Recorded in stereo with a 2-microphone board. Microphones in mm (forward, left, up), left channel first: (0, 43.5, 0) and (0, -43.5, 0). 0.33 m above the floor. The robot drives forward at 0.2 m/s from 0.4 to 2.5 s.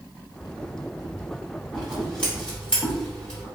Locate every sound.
1.7 s scissors: 10° left (ahead or behind), 1.9 m; by 3.5 s 5° left (ahead or behind), 2.0 m